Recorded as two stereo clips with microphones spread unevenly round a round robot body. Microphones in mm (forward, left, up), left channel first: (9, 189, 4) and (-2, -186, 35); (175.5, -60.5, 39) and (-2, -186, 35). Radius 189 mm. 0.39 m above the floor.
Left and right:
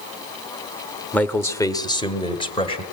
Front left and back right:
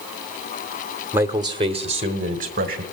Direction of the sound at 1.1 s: 155° left.